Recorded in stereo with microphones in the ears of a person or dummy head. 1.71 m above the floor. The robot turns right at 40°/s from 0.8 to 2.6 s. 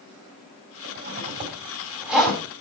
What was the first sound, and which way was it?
A zipper, 60° right (ahead or behind).